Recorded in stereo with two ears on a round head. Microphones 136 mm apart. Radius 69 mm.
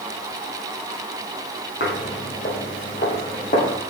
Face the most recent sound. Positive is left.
turn(degrees=40)  # may be behind; listen again after turning